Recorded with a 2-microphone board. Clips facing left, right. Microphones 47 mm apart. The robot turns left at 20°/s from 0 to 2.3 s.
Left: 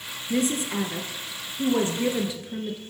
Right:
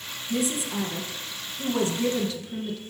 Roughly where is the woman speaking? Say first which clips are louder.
Left 2 dB; ahead left.